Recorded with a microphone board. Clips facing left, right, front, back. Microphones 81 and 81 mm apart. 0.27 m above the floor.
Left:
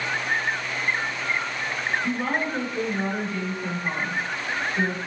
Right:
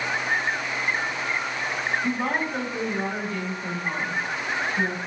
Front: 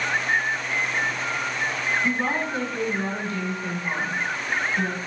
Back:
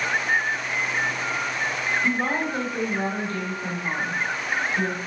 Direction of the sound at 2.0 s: 125° right.